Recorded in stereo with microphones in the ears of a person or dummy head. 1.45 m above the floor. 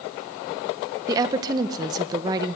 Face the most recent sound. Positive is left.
turn(degrees=-20)  # may be behind; listen again after turning